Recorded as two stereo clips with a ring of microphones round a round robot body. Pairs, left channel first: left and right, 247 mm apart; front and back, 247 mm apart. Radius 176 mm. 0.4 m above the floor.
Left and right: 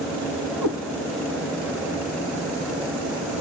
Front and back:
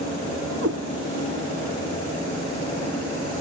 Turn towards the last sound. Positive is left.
turn(degrees=-125)